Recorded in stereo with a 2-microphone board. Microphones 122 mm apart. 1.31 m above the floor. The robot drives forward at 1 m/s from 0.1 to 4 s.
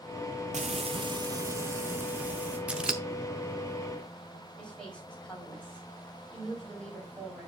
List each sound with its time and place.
0.5 s frying: 70° right (ahead or behind), 0.5 m; by 2.6 s 15° right (ahead or behind), 2 m
2.7 s scissors: 10° right (ahead or behind), 0.7 m; by 3.0 s 5° right (ahead or behind), 1.0 m
4.6 s a woman speaking: 10° left (ahead or behind), 4 m